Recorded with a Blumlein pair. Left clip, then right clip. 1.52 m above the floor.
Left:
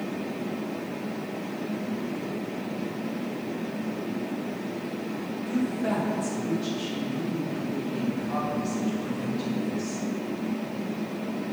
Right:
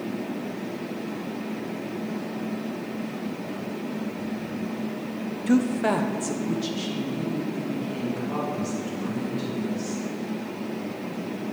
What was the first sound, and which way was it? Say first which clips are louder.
A woman speaking: right 6 dB; 55° right.